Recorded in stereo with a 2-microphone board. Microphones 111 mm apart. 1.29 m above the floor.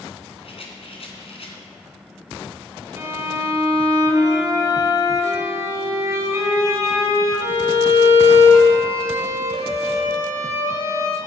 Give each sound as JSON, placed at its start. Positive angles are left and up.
{"t": 0.4, "sound": "a rattle", "side_deg": 60, "distance_m": 2.0}
{"t": 3.0, "sound": "a violin", "side_deg": -25, "distance_m": 2.0}